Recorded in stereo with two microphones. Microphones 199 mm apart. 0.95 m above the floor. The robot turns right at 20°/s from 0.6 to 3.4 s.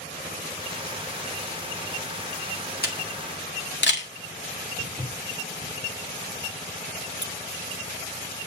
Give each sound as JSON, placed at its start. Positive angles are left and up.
{"t": 2.8, "sound": "a camera shutter", "side_deg": 50, "distance_m": 1.9}
{"t": 4.8, "sound": "footsteps", "side_deg": 15, "distance_m": 3.0}
{"t": 7.2, "sound": "a squeak", "side_deg": -60, "distance_m": 0.6}